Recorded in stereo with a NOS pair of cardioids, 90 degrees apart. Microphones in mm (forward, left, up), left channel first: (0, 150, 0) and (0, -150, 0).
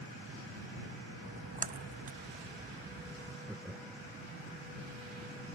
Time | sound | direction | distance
1.2 | a splash | 30° right | ?
3.5 | laughter | 5° right | ?